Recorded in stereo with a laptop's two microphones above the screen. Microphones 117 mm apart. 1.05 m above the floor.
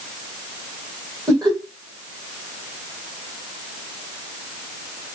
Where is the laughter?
35° right (ahead or behind), 1.1 m.